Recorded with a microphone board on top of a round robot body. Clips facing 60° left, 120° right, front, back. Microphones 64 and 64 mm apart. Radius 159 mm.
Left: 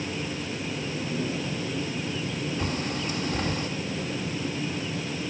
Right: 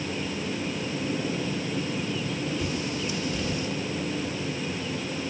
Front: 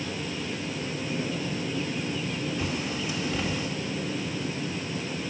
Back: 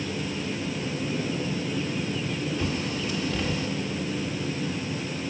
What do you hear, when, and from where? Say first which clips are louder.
2.6 s a bird: even, back 2 dB; 75° left, 1.7 m